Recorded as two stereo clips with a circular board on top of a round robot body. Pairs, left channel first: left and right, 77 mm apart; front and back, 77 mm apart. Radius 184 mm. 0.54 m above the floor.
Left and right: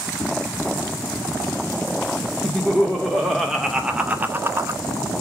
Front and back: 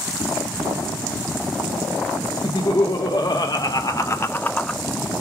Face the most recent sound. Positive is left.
turn(degrees=-80)